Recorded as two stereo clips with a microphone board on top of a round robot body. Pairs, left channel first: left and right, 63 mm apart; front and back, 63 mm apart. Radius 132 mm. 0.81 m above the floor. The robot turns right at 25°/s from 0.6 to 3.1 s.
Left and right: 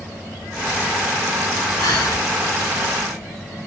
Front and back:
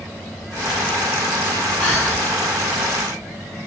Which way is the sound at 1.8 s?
65° left.